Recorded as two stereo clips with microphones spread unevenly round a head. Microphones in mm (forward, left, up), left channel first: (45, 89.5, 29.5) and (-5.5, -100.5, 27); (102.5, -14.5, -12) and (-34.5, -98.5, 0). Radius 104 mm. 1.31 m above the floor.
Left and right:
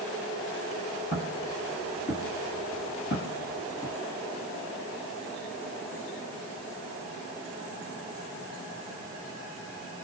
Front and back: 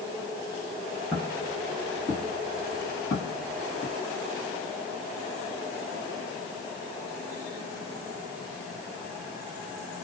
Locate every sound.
1.1 s footsteps: 125° left, 1.8 m; by 3.9 s 25° left, 1.3 m